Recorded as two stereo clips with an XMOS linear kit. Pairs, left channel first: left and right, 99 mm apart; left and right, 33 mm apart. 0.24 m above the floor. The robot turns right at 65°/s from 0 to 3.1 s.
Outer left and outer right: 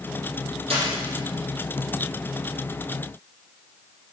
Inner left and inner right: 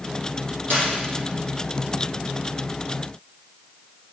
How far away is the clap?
About 5 m.